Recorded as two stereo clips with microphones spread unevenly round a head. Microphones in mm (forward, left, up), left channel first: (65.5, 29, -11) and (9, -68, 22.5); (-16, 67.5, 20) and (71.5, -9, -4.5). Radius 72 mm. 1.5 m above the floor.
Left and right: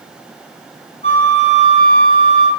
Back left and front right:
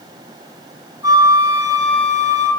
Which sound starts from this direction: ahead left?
A flute, at 1.0 s.